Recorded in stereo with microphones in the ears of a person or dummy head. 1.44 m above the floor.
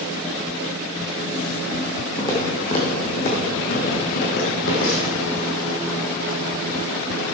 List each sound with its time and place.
2.2 s footsteps: 25° left (ahead or behind), 3 m; by 5.2 s 60° left (ahead or behind), 3.5 m